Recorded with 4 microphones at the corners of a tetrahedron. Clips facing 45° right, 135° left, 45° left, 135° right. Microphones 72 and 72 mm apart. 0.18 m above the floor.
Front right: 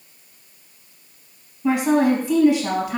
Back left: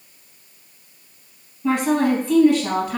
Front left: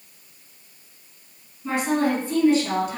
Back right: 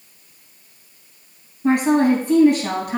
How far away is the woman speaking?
About 4 m.